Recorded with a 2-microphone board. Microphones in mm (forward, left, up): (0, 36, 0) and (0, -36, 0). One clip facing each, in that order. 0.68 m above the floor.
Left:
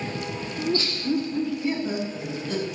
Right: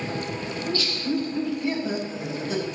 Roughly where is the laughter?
Left.